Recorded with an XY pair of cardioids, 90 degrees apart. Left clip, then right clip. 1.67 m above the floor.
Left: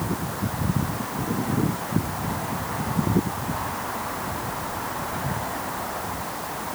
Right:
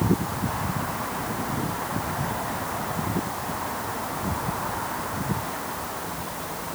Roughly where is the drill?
No drill in this recording.